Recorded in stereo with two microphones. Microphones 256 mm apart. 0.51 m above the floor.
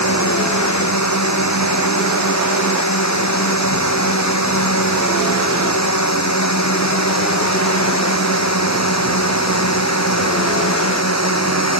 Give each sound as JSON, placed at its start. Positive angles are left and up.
{"t": 0.0, "sound": "a drone", "side_deg": 85}